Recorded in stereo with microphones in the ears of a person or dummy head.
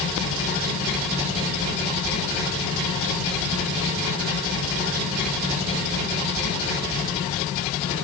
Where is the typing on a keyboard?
I don't hear typing on a keyboard.